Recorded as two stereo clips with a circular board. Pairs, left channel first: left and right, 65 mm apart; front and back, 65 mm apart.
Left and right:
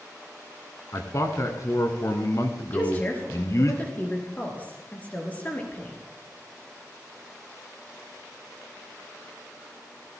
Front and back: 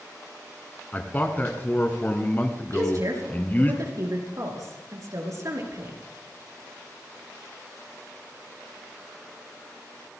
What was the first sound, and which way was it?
A man speaking, 60° left.